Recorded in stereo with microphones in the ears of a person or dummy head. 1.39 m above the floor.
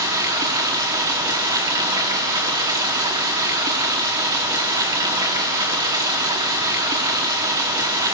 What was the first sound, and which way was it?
Running water, 20° right (ahead or behind).